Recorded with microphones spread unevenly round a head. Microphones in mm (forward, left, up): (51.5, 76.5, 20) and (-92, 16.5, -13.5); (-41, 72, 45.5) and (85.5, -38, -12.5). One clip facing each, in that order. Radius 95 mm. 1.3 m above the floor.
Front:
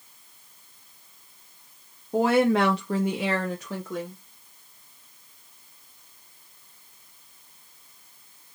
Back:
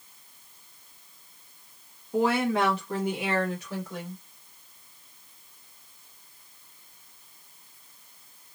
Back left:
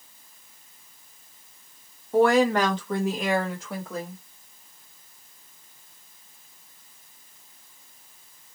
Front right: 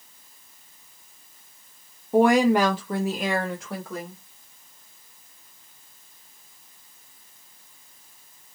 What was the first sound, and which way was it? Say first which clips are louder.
A woman speaking: front 4 dB, front right 2 dB; 35° right.